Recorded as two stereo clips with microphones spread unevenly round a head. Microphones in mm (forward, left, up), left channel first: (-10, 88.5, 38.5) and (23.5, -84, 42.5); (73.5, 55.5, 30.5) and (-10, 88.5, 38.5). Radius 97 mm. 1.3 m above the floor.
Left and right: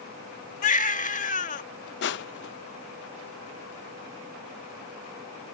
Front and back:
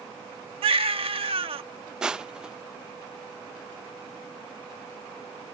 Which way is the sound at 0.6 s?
150° left.